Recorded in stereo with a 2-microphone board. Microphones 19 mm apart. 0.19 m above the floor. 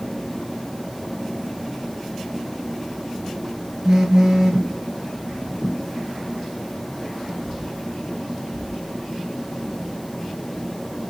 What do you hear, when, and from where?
3.9 s a phone buzzing: 35° right (ahead or behind), 2 m